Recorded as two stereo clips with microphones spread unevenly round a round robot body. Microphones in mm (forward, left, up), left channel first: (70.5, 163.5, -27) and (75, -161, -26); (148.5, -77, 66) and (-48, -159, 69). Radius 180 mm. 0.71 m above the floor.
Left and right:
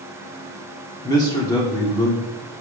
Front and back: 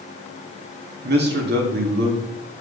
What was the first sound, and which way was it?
A man speaking, 170° left.